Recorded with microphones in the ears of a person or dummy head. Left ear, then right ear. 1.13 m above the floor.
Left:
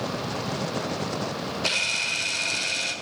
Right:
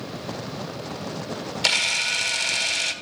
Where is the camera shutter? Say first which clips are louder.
Right 4 dB; 65° right (ahead or behind), 1.3 m.